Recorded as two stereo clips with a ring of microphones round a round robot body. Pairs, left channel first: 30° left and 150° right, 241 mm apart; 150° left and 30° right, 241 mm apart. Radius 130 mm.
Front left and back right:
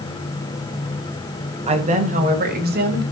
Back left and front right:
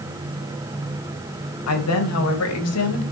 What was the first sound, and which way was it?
A woman speaking, 145° left.